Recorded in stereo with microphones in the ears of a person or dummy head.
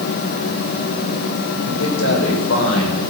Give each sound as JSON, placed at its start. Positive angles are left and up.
{"t": 1.6, "sound": "a man speaking", "side_deg": 85, "distance_m": 6.0}